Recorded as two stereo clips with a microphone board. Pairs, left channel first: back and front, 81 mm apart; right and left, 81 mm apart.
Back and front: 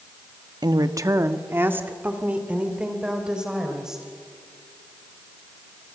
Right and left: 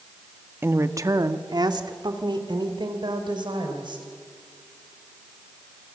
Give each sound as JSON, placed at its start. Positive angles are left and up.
{"t": 0.6, "sound": "a woman speaking", "azimuth_deg": 30, "distance_m": 1.3}